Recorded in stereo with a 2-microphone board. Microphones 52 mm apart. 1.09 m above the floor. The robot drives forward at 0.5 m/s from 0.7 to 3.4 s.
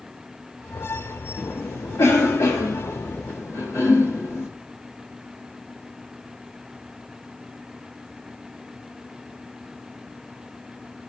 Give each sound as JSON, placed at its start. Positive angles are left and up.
{"t": 1.4, "sound": "a cough", "side_deg": 80, "distance_m": 1.9}